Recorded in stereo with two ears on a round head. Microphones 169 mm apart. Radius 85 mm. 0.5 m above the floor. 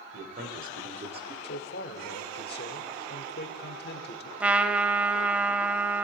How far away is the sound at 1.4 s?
About 1.1 m.